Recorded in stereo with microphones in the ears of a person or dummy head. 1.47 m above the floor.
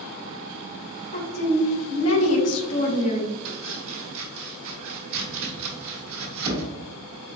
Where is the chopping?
70° right (ahead or behind), 1.2 m.